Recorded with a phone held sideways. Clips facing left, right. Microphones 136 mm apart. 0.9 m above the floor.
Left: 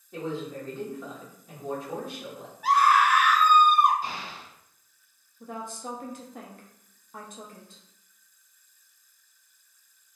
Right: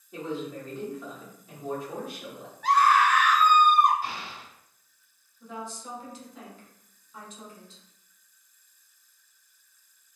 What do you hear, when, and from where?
0.1 s a man speaking: centre (ahead or behind), 1.0 m
2.6 s a scream: 10° left (ahead or behind), 0.9 m
4.0 s an explosion: 20° left (ahead or behind), 1.5 m
5.4 s a woman speaking: 55° left (ahead or behind), 0.7 m